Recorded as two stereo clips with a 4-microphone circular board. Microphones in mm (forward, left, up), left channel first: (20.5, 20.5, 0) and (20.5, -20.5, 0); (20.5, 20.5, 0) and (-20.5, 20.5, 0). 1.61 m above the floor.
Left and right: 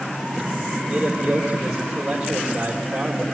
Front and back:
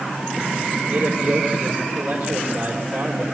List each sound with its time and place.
0.9 s a man speaking: 165° right, 4.5 m